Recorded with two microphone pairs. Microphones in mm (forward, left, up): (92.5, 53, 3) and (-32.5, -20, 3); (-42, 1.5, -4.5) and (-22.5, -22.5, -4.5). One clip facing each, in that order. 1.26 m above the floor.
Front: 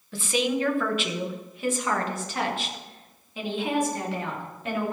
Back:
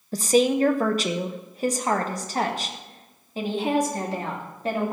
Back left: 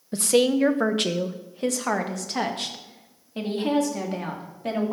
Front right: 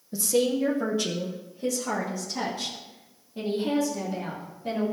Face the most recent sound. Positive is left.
turn(degrees=155)